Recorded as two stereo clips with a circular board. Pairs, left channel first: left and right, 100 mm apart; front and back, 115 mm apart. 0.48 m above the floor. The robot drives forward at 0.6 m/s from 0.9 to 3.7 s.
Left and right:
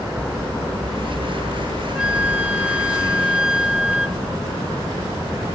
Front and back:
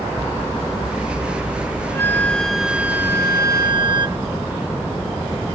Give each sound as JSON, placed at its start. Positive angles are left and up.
{"t": 1.9, "sound": "a flute", "azimuth_deg": -20}